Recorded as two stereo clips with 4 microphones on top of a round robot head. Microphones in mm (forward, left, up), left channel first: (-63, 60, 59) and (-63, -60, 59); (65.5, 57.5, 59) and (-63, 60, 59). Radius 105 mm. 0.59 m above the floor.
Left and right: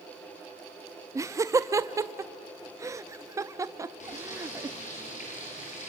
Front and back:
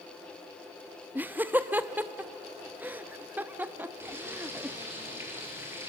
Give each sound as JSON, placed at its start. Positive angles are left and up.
{"t": 1.1, "sound": "laughter", "azimuth_deg": -120, "distance_m": 0.6}
{"t": 4.0, "sound": "frying", "azimuth_deg": 105, "distance_m": 8.0}